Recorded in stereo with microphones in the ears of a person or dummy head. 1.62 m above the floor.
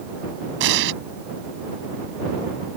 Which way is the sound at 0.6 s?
65° right (ahead or behind).